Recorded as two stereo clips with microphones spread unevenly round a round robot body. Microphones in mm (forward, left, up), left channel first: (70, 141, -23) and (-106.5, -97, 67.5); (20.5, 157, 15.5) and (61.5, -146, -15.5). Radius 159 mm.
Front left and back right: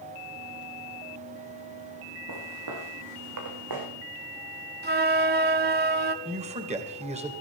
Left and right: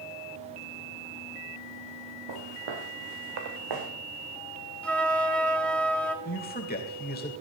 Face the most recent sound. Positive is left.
turn(degrees=160)